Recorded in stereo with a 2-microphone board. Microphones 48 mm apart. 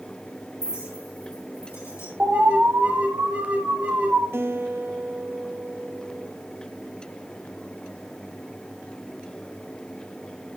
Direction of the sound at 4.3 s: 60° right (ahead or behind).